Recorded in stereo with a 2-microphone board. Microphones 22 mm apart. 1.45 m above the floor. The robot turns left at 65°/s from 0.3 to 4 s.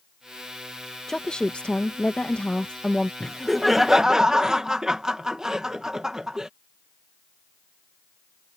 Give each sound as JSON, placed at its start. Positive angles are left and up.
{"t": 1.1, "sound": "a woman speaking", "azimuth_deg": 150}
{"t": 3.2, "sound": "laughter", "azimuth_deg": 20}